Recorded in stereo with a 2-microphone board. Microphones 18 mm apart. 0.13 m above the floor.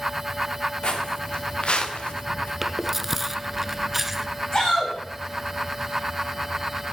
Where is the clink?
I don't hear a clink.